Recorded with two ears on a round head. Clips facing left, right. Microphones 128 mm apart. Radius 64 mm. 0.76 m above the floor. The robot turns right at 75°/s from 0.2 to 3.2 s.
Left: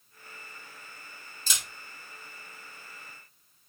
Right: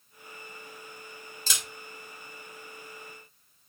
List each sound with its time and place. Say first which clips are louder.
1.5 s a camera shutter: right 1 dB; 70° right (ahead or behind), 2.0 m; by 1.6 s 80° right, 2.0 m